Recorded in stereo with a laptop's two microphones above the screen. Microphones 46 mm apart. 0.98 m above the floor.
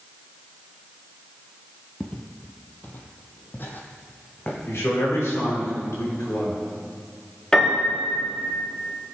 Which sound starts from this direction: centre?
A piano, at 7.5 s.